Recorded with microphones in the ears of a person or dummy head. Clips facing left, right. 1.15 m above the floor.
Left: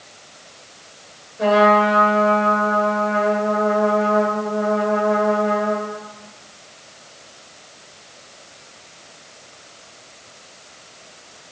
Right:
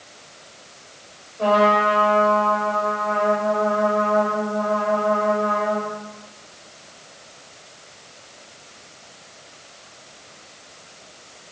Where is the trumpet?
25° left (ahead or behind), 6 m.